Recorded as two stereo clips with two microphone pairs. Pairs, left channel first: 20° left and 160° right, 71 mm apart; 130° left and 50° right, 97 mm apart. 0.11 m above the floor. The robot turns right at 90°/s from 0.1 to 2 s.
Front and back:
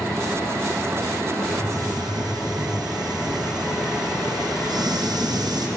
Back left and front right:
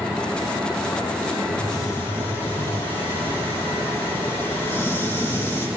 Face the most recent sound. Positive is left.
turn(degrees=-160)